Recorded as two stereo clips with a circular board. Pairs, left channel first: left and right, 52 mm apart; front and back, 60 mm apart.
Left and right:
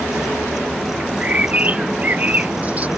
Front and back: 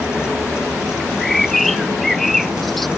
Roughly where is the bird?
Right.